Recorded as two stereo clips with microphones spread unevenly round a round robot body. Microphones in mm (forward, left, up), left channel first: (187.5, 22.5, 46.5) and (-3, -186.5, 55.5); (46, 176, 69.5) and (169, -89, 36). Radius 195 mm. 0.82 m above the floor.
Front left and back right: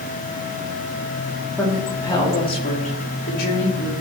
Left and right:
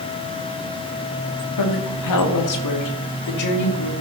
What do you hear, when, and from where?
1.6 s a woman speaking: 135° left, 2 m; by 3.9 s 100° left, 2.5 m